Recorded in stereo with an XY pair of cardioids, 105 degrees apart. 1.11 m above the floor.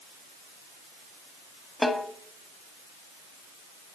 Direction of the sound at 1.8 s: 15° left.